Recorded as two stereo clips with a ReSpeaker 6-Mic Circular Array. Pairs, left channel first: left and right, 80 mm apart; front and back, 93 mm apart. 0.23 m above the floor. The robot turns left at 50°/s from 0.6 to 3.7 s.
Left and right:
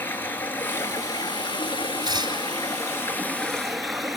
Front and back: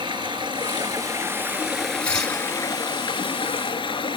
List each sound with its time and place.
0.0 s running water: 155° left, 1.7 m; by 4.2 s straight ahead, 1.7 m
2.0 s tearing paper: 75° right, 4 m; by 2.4 s 95° right, 4 m